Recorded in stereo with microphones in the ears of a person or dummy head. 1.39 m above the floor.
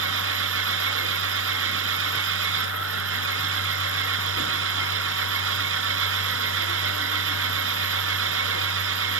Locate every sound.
0.0 s an engine running: 80° right